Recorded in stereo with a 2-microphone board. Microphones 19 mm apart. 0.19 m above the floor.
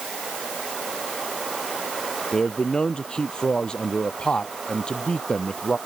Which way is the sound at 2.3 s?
45° left (ahead or behind).